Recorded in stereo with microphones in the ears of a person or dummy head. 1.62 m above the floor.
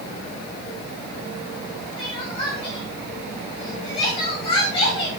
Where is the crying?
30° left (ahead or behind), 3 m.